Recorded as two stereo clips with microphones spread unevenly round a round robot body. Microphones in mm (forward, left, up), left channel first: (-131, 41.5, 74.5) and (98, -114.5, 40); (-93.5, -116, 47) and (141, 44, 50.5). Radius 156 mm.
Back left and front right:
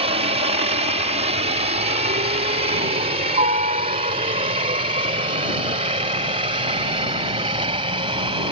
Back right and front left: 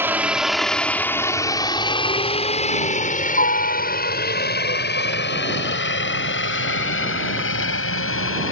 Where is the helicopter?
40° right; by 8.5 s 105° right.